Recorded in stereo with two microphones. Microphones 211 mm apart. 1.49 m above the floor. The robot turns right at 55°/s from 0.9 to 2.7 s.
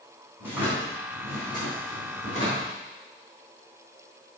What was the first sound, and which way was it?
A drawer, 170° right.